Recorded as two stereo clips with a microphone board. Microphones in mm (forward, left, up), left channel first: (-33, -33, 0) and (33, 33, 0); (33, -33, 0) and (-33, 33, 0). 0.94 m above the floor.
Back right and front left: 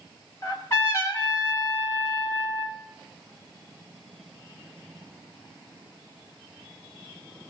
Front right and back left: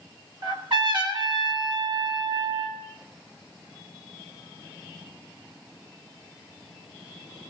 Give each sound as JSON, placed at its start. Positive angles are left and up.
{"t": 0.4, "sound": "a trumpet", "azimuth_deg": 165, "distance_m": 3.0}